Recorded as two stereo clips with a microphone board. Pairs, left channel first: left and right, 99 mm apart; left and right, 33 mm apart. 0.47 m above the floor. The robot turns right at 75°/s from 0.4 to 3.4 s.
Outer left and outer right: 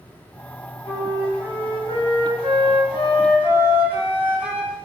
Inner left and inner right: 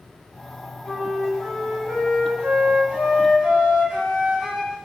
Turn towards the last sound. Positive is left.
turn(degrees=-20)